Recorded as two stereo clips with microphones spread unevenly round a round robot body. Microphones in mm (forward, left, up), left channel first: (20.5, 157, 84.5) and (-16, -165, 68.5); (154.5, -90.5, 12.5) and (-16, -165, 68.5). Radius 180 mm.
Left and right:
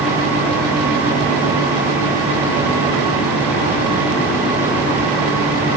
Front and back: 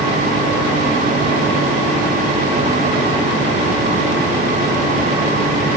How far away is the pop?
I don't hear a pop.